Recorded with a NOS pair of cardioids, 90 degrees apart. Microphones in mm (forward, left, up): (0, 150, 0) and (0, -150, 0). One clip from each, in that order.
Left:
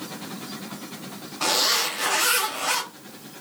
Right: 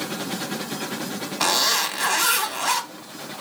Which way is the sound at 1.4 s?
65° right.